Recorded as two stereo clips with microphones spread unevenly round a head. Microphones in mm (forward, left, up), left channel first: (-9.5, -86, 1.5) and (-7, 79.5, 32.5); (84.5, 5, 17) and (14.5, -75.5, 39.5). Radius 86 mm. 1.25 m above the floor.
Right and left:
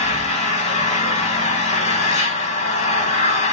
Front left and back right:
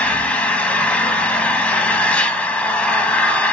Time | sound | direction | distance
0.0 | an engine running | 35° right | 1.0 m